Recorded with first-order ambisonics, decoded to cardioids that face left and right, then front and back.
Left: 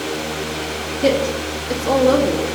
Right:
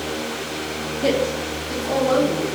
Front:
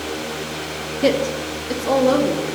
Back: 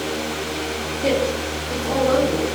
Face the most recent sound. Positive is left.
turn(degrees=50)